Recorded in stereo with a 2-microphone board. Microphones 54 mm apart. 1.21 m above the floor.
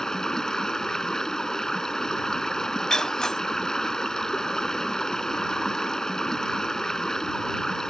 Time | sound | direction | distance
0.0 | running water | 10° left (ahead or behind) | ?
2.9 | breaking glass | 10° left (ahead or behind) | ?